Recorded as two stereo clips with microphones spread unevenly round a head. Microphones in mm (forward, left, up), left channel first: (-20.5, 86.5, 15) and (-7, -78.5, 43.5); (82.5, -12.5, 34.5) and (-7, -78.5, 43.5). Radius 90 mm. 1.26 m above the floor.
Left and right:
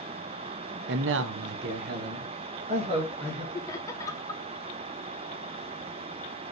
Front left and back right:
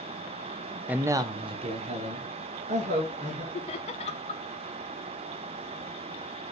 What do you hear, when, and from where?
0.9 s a man speaking: 65° right, 0.8 m; by 3.4 s 145° right, 2.5 m
3.5 s laughter: 30° left, 0.7 m